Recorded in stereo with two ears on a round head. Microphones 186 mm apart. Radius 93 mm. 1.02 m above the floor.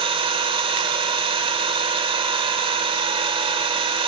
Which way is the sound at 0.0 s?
25° right (ahead or behind).